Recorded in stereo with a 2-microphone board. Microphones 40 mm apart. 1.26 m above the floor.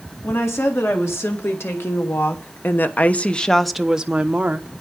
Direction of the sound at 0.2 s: 80° left.